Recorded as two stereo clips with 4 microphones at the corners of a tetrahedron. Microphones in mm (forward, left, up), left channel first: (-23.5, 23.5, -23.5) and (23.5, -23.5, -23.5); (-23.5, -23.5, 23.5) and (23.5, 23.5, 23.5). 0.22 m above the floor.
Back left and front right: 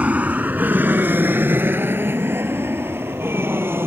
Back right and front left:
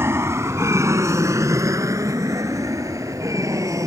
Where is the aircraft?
15° left; by 3.9 s 10° left.